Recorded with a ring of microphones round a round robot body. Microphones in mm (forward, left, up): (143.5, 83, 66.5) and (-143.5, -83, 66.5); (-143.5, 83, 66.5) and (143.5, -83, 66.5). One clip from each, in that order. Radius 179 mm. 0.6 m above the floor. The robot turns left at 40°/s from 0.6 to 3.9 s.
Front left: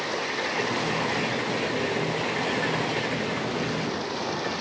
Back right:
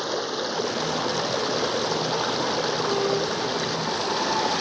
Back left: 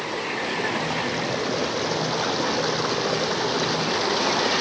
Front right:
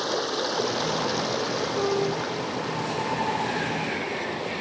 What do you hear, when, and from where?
0.0 s running water: 80° right; by 4.6 s 150° left